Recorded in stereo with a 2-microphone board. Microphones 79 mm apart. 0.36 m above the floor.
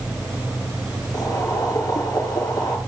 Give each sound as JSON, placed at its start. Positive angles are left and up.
{"t": 1.1, "sound": "boiling", "side_deg": 50, "distance_m": 3.5}